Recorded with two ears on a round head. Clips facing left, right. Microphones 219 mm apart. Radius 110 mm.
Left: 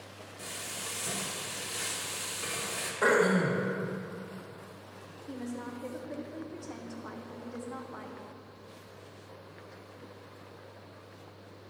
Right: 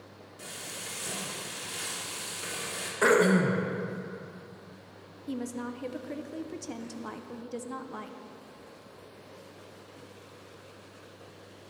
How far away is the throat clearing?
About 0.9 m.